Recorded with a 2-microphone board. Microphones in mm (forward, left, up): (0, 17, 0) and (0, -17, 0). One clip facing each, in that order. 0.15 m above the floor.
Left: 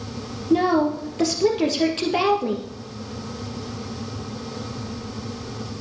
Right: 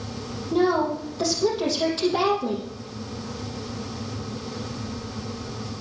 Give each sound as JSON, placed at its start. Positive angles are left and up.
{"t": 0.5, "sound": "a woman speaking", "side_deg": 65, "distance_m": 3.0}